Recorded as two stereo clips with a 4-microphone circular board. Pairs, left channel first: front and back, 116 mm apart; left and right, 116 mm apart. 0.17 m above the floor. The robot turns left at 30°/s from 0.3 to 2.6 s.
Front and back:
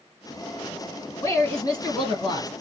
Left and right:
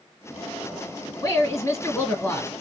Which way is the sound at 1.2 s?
50° left.